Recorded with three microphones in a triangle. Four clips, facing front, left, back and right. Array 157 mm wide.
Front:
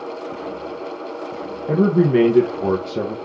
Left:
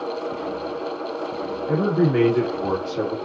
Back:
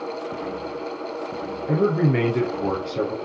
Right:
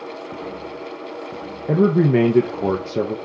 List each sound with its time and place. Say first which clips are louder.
1.7 s a man speaking: right 4 dB, front 5 dB; 65° right, 2.5 m